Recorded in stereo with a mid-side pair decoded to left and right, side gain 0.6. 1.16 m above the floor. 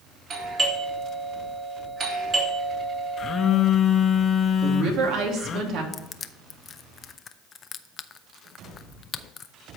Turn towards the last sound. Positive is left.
turn(degrees=35)